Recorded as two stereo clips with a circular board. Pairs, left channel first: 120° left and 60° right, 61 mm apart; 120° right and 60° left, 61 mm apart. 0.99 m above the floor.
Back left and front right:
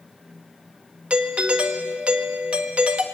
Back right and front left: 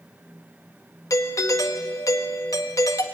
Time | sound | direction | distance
1.1 | a doorbell | 125° right | 1.6 m